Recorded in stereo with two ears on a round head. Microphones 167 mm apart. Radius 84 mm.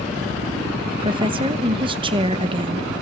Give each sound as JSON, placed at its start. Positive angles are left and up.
{"t": 0.9, "sound": "a woman speaking", "side_deg": -25, "distance_m": 0.8}